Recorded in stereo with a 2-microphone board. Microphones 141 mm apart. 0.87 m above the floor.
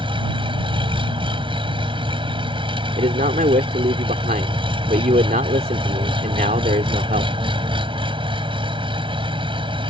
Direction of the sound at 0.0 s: 35° right (ahead or behind).